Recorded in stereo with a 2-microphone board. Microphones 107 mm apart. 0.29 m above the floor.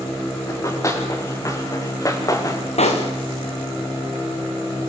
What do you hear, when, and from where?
0.5 s running footsteps: 30° left (ahead or behind), 6.5 m
2.8 s a pop: 85° left, 4 m